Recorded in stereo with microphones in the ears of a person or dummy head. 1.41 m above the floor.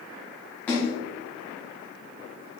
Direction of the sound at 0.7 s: 10° left (ahead or behind).